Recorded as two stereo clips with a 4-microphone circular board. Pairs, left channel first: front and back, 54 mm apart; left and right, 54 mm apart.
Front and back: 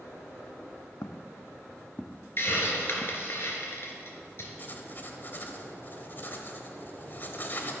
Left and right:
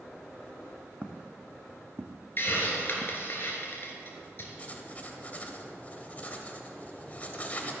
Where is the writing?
40° left, 1.3 m.